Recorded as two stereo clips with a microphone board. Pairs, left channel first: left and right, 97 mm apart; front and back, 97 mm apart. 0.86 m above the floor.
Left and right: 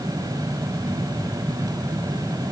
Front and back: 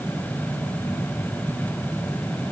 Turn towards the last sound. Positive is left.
No sound to turn to.